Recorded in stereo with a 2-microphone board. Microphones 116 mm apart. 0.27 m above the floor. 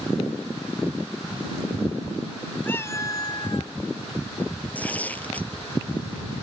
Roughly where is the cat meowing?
Centre.